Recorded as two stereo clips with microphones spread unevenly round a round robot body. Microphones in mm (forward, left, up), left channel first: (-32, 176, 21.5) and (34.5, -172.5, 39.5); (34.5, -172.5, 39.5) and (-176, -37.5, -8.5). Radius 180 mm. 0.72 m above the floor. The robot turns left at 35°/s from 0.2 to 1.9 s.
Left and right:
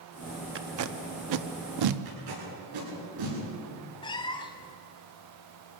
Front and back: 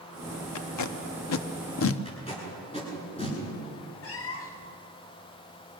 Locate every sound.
0.6 s tape being pulled: 25° right, 0.9 m; by 2.0 s 70° right, 0.9 m
2.0 s tape being pulled: 100° right, 10 m
4.0 s a cat meowing: 25° left, 1.0 m